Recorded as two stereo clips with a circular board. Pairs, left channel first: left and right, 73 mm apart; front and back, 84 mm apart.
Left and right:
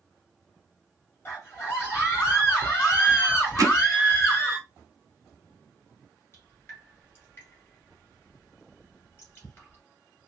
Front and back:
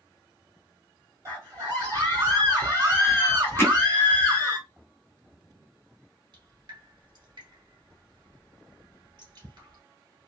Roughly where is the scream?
Behind left.